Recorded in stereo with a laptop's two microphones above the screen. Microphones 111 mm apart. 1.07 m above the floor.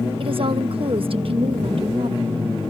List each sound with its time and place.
0.2 s a woman speaking: 55° right (ahead or behind)